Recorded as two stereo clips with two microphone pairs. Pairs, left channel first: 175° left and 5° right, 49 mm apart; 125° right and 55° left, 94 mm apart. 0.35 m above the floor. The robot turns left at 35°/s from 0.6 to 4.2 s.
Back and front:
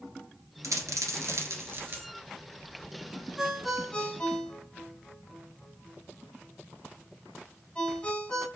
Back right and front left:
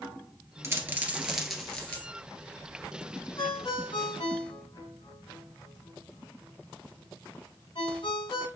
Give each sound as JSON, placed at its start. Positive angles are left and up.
{"t": 0.6, "sound": "a dropped coin", "azimuth_deg": -5, "distance_m": 1.4}
{"t": 3.4, "sound": "a ringtone", "azimuth_deg": -90, "distance_m": 2.0}